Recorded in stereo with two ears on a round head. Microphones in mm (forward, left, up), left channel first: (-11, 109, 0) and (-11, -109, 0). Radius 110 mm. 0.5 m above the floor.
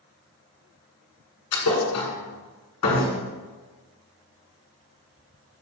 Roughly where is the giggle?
No giggle in this recording.